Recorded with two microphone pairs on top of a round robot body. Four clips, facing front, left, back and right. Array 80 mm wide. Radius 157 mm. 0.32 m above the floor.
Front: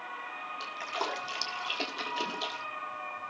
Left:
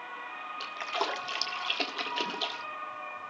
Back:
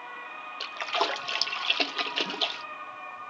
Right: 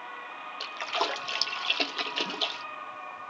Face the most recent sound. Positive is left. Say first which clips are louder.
# right 2 dB, back 7 dB
turn(degrees=165)